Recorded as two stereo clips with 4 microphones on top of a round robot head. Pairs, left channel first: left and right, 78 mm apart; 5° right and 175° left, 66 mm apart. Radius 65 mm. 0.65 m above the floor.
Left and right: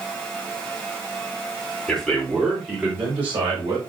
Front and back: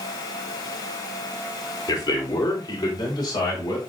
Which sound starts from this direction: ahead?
A man speaking, at 1.9 s.